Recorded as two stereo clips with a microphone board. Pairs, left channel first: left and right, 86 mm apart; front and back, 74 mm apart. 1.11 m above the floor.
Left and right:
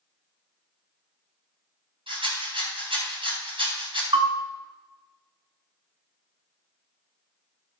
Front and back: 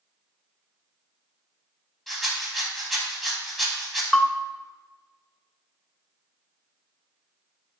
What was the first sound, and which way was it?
A rattle, 90° right.